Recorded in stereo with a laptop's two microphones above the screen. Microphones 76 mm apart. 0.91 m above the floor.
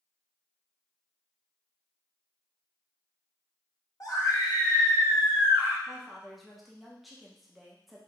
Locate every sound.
4.0 s a scream: 50° left (ahead or behind), 1.6 m; by 5.8 s 70° left (ahead or behind), 2 m
5.9 s a woman speaking: centre (ahead or behind), 0.9 m